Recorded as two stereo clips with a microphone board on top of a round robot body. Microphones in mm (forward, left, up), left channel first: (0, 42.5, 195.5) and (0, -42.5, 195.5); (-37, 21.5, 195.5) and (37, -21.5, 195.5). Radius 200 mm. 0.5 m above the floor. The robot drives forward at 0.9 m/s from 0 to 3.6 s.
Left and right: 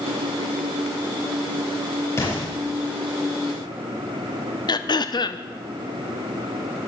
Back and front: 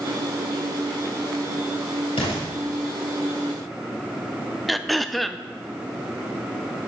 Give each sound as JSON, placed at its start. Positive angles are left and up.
{"t": 2.2, "sound": "an explosion", "azimuth_deg": 145, "distance_m": 8.0}
{"t": 4.7, "sound": "throat clearing", "azimuth_deg": 60, "distance_m": 0.7}